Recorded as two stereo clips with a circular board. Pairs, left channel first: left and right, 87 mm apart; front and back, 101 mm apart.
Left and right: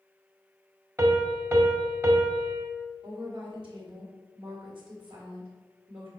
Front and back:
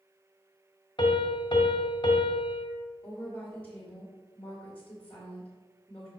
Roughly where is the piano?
Ahead right.